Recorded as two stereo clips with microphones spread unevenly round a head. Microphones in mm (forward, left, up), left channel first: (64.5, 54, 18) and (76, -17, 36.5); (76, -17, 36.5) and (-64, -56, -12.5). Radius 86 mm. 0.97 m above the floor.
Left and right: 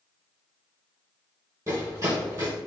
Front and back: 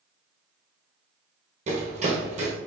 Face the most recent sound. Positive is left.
turn(degrees=-120)